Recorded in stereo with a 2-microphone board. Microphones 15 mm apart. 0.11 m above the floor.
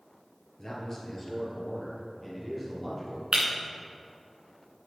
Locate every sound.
0.6 s a man speaking: 30° left (ahead or behind), 2 m; by 3.2 s 5° left (ahead or behind), 3.5 m
3.3 s breaking glass: 85° right, 2.5 m